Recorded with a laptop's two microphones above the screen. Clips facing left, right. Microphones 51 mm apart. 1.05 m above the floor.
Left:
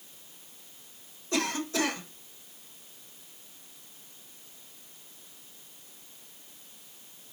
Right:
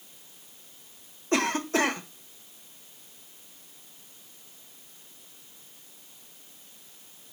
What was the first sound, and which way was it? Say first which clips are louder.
A cough: right 4 dB; 45° right (ahead or behind).